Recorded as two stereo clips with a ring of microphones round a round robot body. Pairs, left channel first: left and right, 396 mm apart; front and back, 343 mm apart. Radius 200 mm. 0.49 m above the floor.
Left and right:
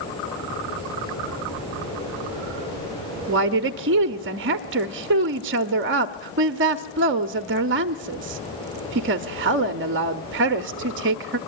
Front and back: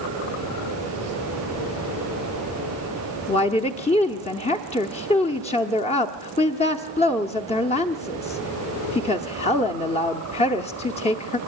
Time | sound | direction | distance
3.3 | a woman speaking | 60° right | 0.8 m